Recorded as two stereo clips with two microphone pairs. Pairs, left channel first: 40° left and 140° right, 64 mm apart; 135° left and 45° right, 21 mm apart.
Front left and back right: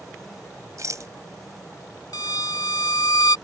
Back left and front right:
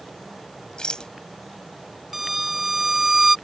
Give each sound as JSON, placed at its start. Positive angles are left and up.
{"t": 0.8, "sound": "a rattle", "azimuth_deg": -175}
{"t": 2.1, "sound": "a violin", "azimuth_deg": 35}